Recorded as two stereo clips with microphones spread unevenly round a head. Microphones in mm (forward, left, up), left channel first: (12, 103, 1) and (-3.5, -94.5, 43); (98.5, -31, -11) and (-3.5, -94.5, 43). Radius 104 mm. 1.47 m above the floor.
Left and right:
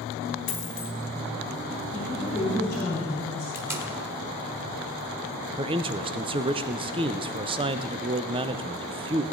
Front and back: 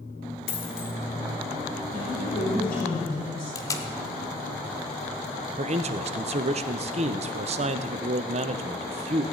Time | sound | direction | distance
0.5 | a dropped coin | 55° left | 2.5 m
1.9 | a woman speaking | 30° left | 3.5 m
3.5 | tape being pulled | 55° right | 1.2 m
5.6 | a man speaking | 155° right | 0.6 m